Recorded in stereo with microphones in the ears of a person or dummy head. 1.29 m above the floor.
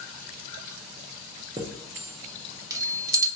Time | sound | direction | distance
1.6 | a chime | 20° right (ahead or behind) | 0.6 m